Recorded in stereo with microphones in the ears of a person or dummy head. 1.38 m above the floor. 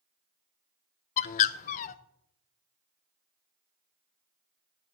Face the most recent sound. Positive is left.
turn(degrees=45)  # may be behind; listen again after turning